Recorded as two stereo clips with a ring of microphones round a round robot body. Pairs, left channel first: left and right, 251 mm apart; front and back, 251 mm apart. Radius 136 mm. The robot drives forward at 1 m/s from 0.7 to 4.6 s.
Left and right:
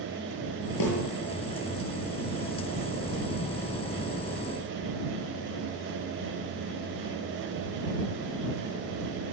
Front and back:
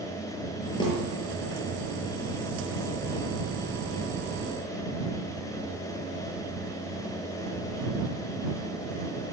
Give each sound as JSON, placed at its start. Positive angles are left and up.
{"t": 0.8, "sound": "a snare drum", "azimuth_deg": 75, "distance_m": 8.5}